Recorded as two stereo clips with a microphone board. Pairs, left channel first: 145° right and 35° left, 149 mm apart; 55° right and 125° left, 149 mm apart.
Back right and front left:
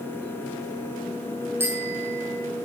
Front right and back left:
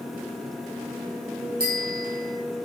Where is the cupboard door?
I don't hear a cupboard door.